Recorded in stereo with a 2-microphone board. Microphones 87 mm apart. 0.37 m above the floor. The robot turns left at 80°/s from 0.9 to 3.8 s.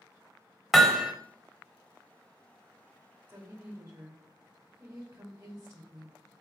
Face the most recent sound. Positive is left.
turn(degrees=-85)